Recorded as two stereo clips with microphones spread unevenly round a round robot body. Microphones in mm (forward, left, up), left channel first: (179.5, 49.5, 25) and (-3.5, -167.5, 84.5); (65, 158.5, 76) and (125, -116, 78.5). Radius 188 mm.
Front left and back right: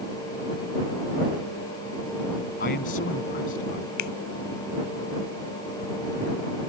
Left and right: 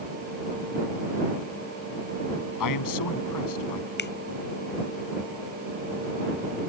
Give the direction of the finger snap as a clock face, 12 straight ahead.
10 o'clock.